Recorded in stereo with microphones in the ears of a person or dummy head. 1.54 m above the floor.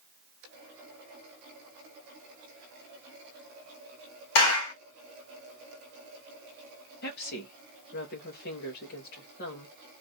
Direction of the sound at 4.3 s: 70° left (ahead or behind).